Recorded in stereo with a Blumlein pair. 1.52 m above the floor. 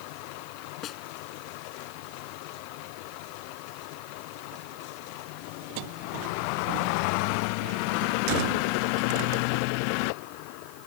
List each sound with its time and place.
0.8 s a snare drum: 30° left